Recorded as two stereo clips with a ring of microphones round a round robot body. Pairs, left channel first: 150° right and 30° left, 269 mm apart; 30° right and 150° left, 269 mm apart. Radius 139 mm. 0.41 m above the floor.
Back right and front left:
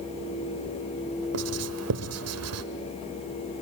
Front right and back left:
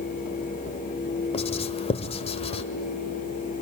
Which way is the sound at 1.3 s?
35° left.